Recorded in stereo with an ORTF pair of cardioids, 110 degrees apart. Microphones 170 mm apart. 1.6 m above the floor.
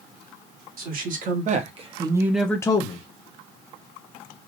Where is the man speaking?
55° right, 1.6 m; by 3.1 s 45° left, 0.7 m.